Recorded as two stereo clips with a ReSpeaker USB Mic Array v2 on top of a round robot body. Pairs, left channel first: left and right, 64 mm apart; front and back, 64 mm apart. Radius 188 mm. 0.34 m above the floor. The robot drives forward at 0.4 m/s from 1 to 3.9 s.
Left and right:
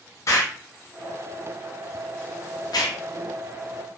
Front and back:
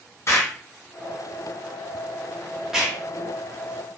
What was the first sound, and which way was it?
An explosion, 50° left.